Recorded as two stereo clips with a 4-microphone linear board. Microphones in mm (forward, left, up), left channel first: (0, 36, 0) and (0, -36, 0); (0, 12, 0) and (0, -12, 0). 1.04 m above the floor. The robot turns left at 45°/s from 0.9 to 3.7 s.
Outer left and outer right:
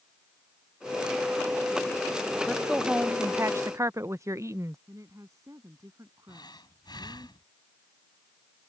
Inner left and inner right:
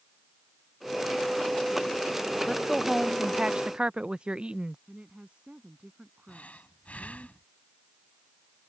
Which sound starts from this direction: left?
Breathing, at 6.3 s.